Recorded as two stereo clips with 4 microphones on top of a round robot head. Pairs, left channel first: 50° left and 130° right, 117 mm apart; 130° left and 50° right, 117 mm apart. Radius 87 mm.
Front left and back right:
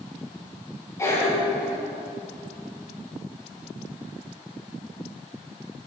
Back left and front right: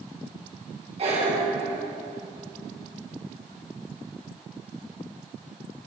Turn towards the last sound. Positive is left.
turn(degrees=-15)